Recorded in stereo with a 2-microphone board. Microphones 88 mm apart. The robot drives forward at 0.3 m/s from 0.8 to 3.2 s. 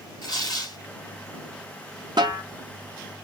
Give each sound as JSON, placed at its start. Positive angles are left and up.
{"t": 0.2, "sound": "tearing paper", "side_deg": 45, "distance_m": 2.5}
{"t": 2.2, "sound": "a snare drum", "side_deg": -55, "distance_m": 1.1}